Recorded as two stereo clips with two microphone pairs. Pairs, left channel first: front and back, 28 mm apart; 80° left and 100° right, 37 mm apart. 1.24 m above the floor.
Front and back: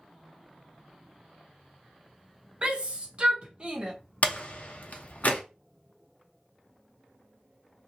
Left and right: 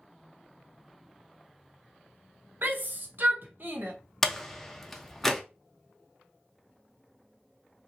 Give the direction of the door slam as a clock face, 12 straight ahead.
12 o'clock.